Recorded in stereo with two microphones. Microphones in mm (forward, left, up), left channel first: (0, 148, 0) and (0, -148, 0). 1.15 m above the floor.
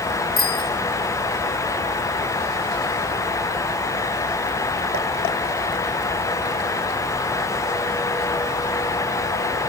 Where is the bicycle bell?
30° left (ahead or behind), 4.5 m.